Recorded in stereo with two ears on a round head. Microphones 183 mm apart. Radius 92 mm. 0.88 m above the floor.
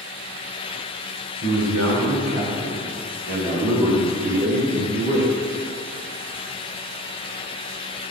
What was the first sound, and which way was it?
A man speaking, 80° right.